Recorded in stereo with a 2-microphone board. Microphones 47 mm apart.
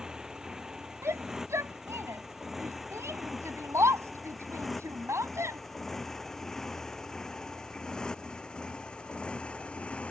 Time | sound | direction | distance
0.0 | a motorcycle | 15° right (ahead or behind) | ?
1.0 | a shout | 80° right | ?